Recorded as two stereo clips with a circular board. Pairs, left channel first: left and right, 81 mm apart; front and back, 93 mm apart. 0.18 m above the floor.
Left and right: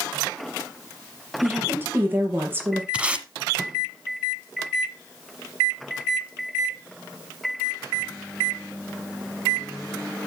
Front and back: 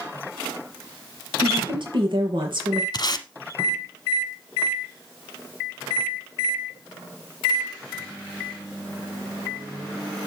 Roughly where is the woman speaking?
Behind right.